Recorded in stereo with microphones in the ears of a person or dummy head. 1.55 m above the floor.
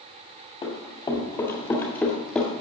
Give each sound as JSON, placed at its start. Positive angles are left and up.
{"t": 0.6, "sound": "running footsteps", "side_deg": 30, "distance_m": 2.5}